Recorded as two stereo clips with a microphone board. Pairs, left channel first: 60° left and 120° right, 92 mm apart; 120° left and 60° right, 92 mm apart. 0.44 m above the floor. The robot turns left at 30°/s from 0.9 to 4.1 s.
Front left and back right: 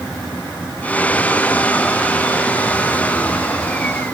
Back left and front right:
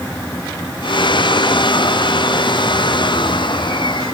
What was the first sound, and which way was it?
Only background noise.